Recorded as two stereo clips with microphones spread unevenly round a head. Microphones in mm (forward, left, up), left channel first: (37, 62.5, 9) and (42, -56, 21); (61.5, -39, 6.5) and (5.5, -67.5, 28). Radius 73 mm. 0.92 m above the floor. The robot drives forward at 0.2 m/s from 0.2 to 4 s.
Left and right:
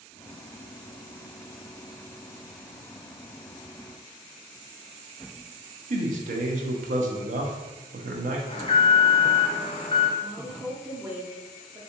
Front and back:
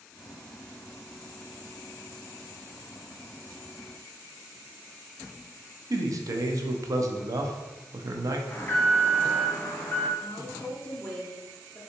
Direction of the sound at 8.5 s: 70° left.